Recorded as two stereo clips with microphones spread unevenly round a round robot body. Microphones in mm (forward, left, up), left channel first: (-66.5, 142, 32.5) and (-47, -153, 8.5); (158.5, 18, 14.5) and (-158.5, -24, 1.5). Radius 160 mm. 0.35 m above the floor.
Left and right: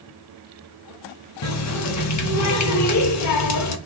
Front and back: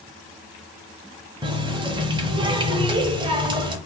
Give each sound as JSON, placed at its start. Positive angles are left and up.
{"t": 1.4, "sound": "a running tap", "azimuth_deg": 115, "distance_m": 0.9}